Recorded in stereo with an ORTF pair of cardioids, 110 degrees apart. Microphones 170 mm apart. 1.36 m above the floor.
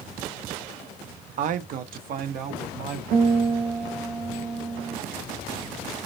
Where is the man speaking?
50° right, 0.5 m; by 3.0 s 65° right, 1.4 m.